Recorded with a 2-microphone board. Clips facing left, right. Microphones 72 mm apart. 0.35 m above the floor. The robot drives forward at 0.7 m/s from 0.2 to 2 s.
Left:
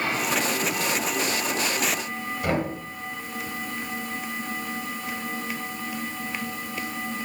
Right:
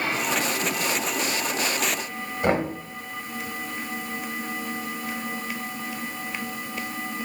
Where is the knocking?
35° right (ahead or behind), 1.1 m.